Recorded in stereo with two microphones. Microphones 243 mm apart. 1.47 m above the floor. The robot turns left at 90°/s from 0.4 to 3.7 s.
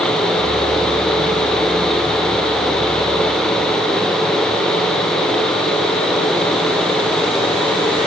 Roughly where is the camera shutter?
No camera shutter in this recording.